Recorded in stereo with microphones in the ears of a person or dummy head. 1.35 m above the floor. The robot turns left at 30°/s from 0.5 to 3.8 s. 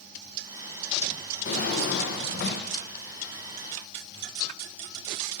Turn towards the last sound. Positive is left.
turn(degrees=45)